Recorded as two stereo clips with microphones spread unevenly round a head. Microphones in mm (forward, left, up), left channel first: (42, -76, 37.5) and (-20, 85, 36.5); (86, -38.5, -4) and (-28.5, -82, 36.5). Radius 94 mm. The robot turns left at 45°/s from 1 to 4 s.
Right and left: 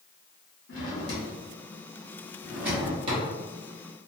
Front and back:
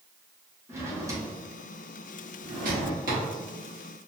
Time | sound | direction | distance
0.7 | a drawer | 95° right | 1.2 m